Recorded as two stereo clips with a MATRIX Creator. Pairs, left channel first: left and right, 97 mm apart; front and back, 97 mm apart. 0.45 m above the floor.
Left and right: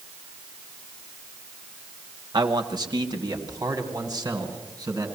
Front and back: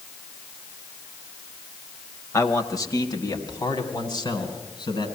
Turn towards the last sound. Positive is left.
turn(degrees=-35)